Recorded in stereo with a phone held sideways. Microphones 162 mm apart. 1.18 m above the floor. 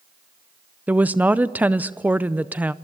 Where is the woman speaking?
10° right (ahead or behind), 0.5 m.